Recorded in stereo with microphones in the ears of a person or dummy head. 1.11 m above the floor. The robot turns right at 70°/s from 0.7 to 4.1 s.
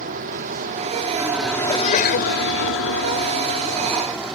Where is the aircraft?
55° right; by 4.4 s 175° right.